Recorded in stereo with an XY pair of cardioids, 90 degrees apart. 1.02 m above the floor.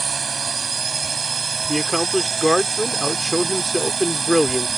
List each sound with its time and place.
0.0 s a drone: 40° right
1.7 s a man speaking: 5° left